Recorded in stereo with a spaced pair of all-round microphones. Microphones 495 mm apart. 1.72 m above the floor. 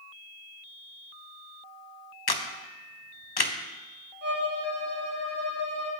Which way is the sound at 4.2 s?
50° left (ahead or behind).